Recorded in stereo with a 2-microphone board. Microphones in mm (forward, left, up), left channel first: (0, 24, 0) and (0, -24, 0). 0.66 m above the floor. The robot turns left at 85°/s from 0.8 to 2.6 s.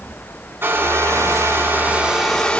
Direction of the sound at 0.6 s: 55° right.